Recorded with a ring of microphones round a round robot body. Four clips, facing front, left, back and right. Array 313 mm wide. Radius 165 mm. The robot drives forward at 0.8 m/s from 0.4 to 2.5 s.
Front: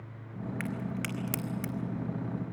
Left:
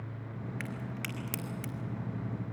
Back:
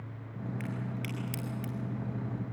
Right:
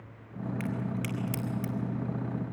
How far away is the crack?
About 1.8 m.